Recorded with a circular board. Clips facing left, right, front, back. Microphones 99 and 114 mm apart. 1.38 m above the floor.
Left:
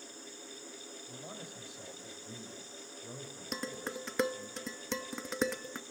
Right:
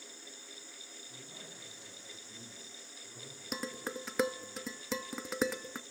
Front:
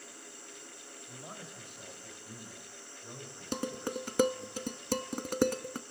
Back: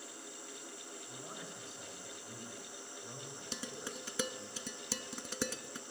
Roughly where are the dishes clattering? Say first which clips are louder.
Even, front 11 dB; ahead.